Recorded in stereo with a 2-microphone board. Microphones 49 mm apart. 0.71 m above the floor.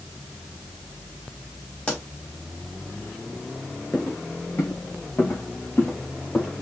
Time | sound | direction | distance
1.9 | a pop | 25° left (ahead or behind) | 3 m
3.9 | footsteps | 55° left (ahead or behind) | 3 m